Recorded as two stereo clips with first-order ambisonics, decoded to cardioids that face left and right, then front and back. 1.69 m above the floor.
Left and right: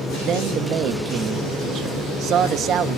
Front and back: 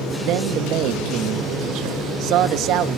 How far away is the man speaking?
About 0.7 m.